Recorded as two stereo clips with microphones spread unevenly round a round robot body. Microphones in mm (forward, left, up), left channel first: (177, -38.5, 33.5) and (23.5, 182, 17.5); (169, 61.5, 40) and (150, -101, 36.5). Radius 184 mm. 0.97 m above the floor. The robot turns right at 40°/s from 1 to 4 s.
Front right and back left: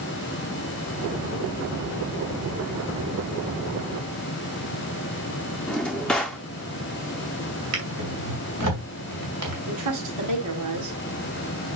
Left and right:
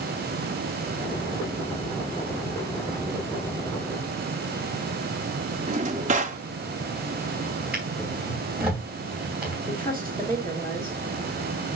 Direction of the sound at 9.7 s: 160° left.